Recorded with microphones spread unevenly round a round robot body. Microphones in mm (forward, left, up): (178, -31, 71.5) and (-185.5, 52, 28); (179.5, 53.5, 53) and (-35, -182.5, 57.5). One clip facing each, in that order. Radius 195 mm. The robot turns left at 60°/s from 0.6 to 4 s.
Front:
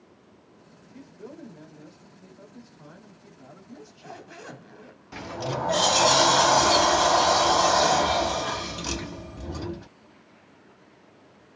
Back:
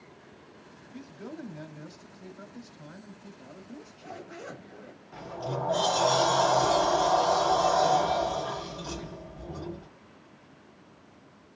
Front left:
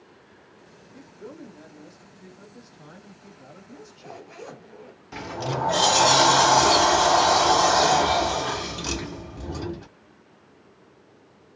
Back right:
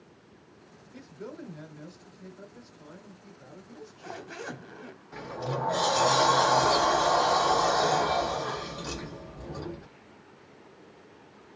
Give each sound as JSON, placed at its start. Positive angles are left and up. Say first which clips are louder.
{"t": 0.9, "sound": "a man speaking", "louder": "back 2 dB, even", "azimuth_deg": -135, "distance_m": 1.8}
{"t": 3.7, "sound": "a zipper", "louder": "front 1 dB, front left 1 dB", "azimuth_deg": -65, "distance_m": 1.0}
{"t": 5.1, "sound": "a sliding door", "louder": "front 3 dB, front left 4 dB", "azimuth_deg": 20, "distance_m": 0.5}